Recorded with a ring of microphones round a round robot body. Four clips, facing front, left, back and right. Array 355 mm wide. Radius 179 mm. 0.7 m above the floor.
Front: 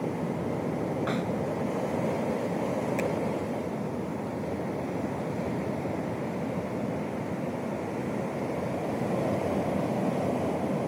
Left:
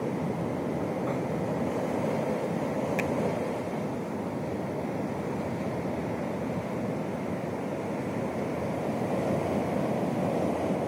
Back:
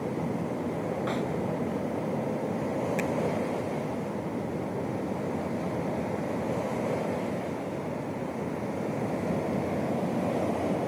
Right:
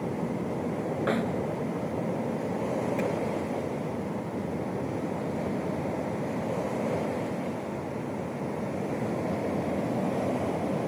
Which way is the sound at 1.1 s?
85° right.